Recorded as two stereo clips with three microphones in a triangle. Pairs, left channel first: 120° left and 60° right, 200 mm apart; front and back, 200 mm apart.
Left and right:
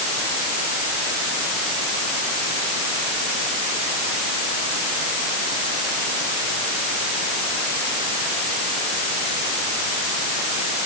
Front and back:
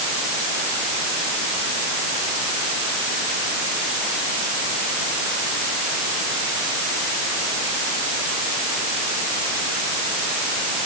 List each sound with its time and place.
Only background noise.